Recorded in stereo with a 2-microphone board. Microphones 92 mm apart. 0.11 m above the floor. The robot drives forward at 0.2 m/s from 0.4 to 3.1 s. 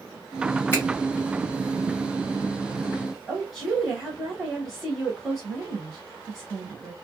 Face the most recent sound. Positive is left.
turn(degrees=0)  # may be behind; listen again after turning